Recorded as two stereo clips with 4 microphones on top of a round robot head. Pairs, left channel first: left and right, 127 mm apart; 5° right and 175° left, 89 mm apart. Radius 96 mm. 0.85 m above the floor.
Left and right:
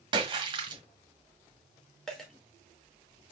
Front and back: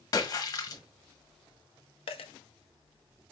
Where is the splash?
45° right, 1.3 m.